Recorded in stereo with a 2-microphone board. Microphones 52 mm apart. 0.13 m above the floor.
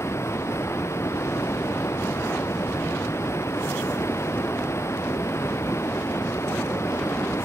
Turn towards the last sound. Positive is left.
turn(degrees=55)  # may be behind; listen again after turning